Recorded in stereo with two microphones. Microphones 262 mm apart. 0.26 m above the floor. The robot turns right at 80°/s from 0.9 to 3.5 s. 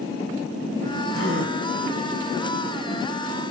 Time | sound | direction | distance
1.1 | a gasp | 90° right | 1.5 m